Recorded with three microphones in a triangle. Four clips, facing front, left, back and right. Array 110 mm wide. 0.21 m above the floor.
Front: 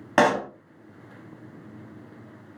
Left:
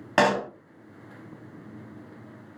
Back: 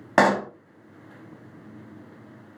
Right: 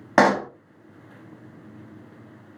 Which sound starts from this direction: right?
A pop, at 0.2 s.